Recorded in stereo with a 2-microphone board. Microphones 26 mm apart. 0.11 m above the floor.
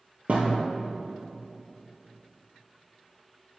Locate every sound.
0.3 s a thud: 60° right (ahead or behind), 1.5 m